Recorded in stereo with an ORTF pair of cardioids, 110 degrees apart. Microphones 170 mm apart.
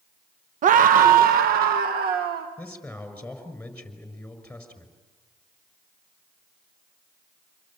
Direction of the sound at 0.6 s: 50° right.